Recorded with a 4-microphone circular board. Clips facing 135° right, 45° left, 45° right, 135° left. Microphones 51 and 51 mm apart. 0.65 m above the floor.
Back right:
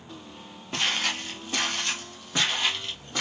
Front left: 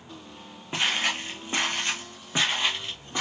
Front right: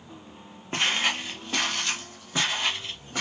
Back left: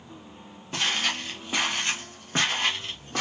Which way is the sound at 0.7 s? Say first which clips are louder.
Front left 1 dB, front right 2 dB; 15° right.